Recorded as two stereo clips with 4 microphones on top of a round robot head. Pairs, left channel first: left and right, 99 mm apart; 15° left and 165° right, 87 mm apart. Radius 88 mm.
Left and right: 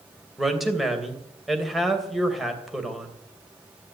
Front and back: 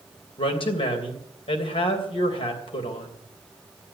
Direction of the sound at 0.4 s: Straight ahead.